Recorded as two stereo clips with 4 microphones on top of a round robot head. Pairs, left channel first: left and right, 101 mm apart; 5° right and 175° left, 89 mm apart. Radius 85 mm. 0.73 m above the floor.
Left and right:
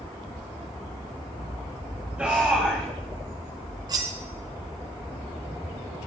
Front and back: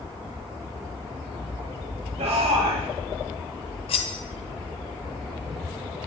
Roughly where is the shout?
Behind.